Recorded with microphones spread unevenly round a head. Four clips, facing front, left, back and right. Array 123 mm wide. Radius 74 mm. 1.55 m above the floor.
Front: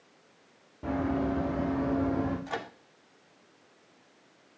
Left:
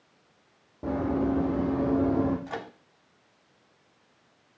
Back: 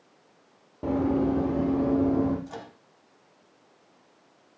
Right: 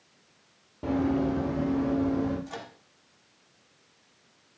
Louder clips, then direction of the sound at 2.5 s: Left 4 dB, front 4 dB; 20° left.